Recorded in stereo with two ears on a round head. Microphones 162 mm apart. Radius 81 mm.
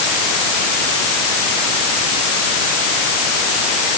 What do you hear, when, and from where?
Only background noise.